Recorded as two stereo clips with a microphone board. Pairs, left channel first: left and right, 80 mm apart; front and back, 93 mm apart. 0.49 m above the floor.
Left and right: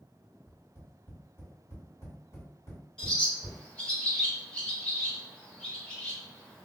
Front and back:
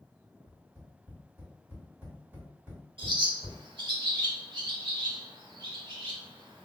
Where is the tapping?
120° left, 1.8 m.